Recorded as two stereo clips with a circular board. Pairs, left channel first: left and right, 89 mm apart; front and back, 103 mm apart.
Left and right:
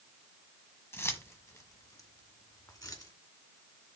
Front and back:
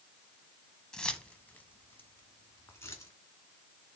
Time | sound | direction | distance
0.9 | keys jangling | 75° left | 1.1 m